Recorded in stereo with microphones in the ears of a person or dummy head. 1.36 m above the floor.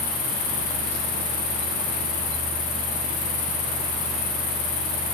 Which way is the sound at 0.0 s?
35° left (ahead or behind).